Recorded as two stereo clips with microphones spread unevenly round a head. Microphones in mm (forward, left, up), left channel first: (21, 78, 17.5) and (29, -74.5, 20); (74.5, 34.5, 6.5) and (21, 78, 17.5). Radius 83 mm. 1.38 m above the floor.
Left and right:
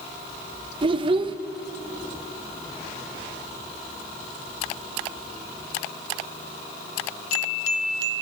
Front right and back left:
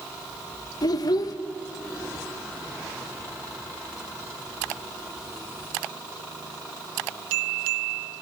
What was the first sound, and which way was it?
A child speaking, 40° right.